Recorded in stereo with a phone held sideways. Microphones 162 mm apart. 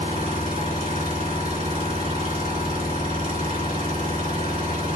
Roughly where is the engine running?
Right.